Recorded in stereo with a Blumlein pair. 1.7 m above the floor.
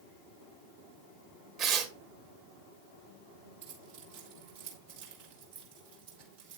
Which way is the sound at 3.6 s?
55° right.